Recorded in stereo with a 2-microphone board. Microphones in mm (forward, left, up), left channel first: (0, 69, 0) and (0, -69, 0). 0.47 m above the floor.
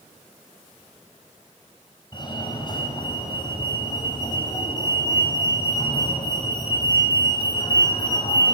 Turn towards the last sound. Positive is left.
turn(degrees=35)  # may be behind; listen again after turning